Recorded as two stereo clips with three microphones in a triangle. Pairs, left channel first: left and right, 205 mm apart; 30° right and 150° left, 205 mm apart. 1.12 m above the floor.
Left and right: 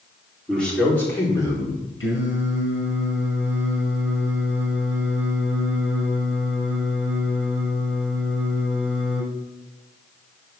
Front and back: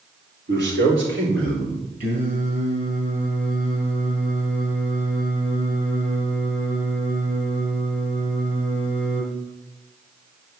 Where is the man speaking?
175° left, 3.5 m; by 1.8 s 160° left, 4.5 m.